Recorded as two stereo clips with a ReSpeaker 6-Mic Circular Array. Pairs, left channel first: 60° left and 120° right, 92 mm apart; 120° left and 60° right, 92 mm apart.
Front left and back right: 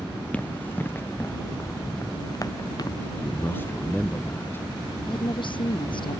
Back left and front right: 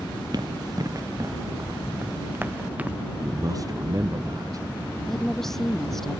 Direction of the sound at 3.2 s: 10° right.